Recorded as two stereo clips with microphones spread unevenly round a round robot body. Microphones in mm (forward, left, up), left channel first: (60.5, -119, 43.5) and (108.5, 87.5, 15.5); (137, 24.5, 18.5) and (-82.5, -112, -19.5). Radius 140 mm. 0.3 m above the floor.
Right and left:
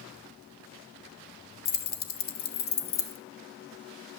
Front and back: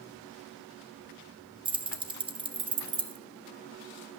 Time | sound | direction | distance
1.6 | keys jangling | 105° right | 0.6 m